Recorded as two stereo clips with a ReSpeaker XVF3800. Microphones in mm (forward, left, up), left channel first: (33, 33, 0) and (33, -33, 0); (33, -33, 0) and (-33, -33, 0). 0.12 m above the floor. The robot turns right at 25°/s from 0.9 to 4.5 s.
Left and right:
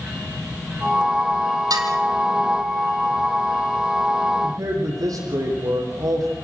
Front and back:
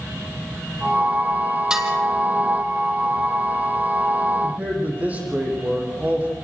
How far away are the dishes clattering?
About 3 m.